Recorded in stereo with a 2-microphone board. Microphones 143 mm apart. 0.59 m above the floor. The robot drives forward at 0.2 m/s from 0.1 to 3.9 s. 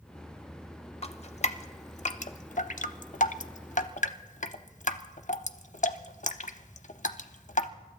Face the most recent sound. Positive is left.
turn(degrees=55)  # may be behind; listen again after turning